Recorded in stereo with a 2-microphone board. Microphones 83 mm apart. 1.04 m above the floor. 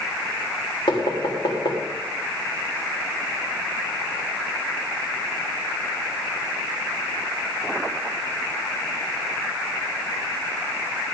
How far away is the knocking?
About 3 m.